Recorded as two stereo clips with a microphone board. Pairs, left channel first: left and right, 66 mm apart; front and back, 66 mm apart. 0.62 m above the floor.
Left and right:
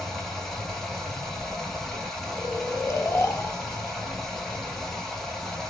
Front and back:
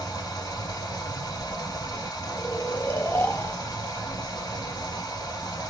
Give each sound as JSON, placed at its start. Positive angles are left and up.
{"t": 0.0, "sound": "running water", "azimuth_deg": 5, "distance_m": 1.8}
{"t": 2.4, "sound": "snoring", "azimuth_deg": 45, "distance_m": 0.8}